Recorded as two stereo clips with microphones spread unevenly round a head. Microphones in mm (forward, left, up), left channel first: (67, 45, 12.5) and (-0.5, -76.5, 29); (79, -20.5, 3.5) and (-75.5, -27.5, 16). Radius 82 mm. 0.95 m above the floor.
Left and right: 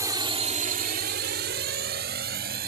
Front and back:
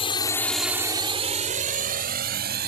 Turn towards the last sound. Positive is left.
turn(degrees=-155)